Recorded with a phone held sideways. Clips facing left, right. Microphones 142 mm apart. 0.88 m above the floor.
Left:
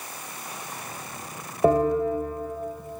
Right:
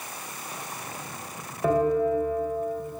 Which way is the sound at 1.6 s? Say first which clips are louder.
Left 2 dB; 35° left (ahead or behind).